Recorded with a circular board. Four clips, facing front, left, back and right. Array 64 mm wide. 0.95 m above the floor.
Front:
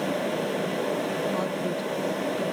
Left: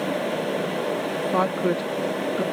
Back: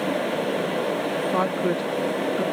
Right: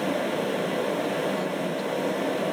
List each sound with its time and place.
1.3 s a woman speaking: 125° left